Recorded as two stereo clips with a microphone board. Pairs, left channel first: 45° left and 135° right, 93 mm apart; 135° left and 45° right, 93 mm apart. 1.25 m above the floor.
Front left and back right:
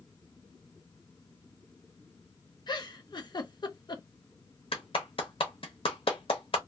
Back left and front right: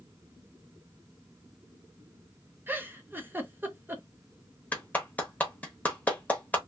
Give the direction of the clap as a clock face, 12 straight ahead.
10 o'clock.